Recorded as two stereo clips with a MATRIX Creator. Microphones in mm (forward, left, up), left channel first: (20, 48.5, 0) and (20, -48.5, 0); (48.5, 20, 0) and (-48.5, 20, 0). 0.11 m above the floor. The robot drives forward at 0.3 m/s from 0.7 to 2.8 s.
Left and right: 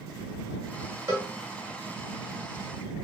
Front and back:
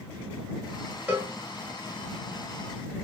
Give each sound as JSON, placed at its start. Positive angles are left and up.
{"t": 1.1, "sound": "a cowbell", "azimuth_deg": -120, "distance_m": 1.5}